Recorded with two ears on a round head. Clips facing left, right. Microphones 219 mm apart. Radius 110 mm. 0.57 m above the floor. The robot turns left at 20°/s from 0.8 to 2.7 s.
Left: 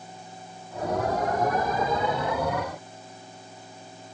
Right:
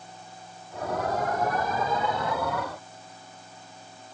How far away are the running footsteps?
No running footsteps in this recording.